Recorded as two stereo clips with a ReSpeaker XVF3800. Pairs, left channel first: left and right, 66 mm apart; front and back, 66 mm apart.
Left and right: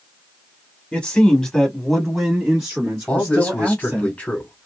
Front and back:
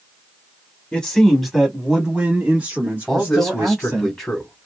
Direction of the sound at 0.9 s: 50° left.